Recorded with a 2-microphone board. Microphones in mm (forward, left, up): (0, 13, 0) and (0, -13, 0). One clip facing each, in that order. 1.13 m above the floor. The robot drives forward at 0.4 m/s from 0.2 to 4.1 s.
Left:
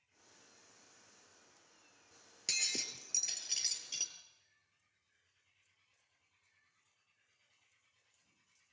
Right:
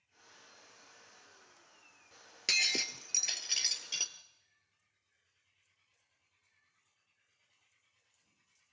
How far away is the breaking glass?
About 1.3 m.